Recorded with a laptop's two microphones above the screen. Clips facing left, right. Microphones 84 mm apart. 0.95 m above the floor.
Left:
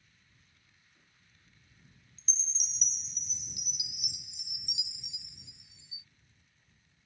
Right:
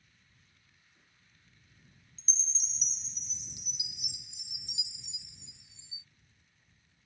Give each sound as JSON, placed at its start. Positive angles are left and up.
{"t": 2.2, "sound": "a chime", "side_deg": -30}